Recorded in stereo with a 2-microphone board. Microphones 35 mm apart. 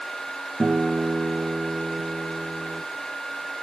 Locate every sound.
0.6 s a guitar: 50° right (ahead or behind), 2.5 m